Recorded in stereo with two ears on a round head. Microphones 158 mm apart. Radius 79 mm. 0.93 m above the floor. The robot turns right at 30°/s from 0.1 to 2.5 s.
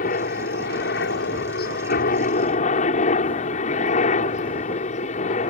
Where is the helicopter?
60° left; by 5.5 s 130° left.